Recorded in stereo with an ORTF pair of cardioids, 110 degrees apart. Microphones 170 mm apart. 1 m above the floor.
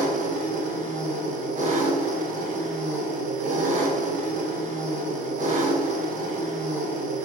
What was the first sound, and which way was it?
An engine running, 45° right.